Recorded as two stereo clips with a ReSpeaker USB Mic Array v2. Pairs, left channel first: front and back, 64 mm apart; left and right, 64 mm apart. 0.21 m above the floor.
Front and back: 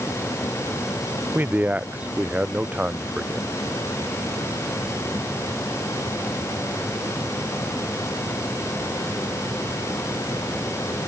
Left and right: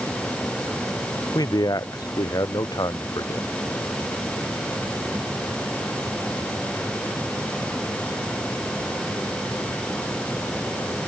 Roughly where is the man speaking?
Behind left.